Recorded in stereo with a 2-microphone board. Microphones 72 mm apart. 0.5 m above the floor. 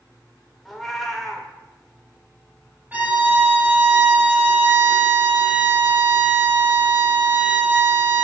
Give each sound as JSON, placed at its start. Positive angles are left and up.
{"t": 0.7, "sound": "a cat meowing", "side_deg": 5, "distance_m": 0.8}
{"t": 2.9, "sound": "a violin", "side_deg": -25, "distance_m": 0.8}